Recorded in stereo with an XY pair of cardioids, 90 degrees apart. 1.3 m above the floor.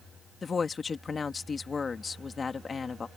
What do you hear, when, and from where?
0.4 s a woman speaking: 40° left